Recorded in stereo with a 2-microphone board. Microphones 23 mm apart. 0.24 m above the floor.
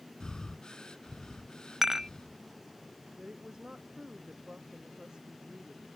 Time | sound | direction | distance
0.2 | breathing | 35° left (ahead or behind) | ?
1.8 | dishes clattering | 15° right (ahead or behind) | ?
3.2 | a woman speaking | 40° right (ahead or behind) | ?